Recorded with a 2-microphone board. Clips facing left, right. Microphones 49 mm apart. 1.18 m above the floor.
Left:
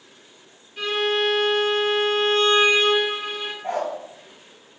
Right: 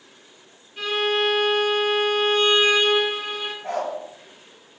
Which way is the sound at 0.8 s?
5° right (ahead or behind).